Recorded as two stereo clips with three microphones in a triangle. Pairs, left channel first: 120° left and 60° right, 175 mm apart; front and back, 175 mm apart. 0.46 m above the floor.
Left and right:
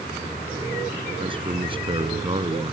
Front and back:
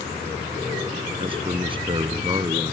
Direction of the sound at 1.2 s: 120° right.